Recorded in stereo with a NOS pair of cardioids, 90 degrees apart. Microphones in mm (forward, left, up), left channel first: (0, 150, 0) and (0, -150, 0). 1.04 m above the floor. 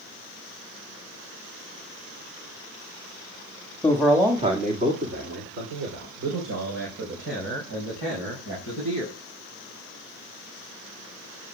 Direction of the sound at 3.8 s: 10° left.